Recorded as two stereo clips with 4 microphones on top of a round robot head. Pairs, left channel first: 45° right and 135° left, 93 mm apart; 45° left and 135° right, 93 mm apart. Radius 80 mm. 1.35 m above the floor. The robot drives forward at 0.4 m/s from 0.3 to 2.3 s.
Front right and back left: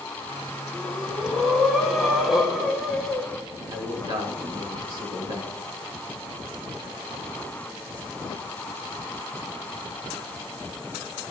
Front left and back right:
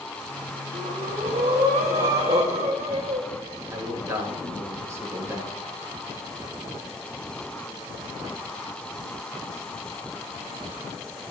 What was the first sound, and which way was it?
Breathing, 125° right.